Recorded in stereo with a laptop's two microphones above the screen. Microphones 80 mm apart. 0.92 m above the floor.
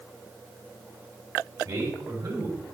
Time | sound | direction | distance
1.6 | a man speaking | 55° right (ahead or behind) | 3.5 m